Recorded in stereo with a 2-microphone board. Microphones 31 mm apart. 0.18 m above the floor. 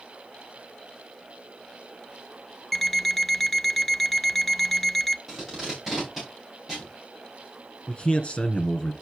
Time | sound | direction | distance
2.7 | an alarm clock | 5° left (ahead or behind) | 0.5 m
5.3 | tape being pulled | 5° right (ahead or behind) | 6.5 m
7.9 | a man speaking | 40° left (ahead or behind) | 2.5 m